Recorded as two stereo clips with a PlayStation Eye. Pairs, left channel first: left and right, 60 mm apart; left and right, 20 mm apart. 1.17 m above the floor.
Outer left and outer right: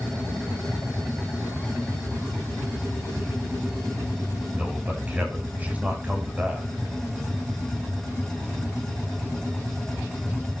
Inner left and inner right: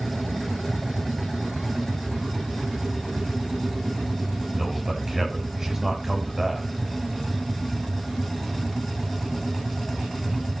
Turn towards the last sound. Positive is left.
turn(degrees=-25)  # may be behind; listen again after turning